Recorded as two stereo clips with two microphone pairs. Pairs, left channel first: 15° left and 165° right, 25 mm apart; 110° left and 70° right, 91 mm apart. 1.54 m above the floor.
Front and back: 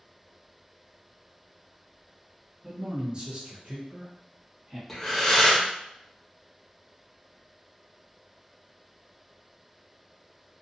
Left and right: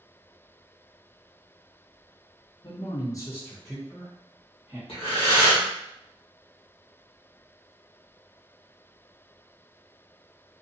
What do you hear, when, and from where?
2.6 s a man speaking: 120° left, 0.8 m; by 4.8 s 125° right, 1.2 m
4.9 s breathing: 100° left, 1.0 m